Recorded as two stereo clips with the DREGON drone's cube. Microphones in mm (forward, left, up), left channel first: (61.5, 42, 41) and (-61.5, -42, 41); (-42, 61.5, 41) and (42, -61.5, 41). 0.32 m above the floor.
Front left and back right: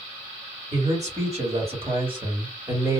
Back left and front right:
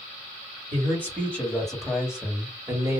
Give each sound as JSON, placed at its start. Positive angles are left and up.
{"t": 0.7, "sound": "a man speaking", "azimuth_deg": -165, "distance_m": 1.9}